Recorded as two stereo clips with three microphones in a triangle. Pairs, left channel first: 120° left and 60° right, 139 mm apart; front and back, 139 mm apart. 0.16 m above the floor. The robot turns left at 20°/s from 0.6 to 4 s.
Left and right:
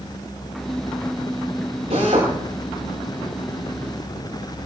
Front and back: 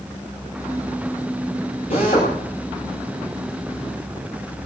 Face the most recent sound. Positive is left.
turn(degrees=-65)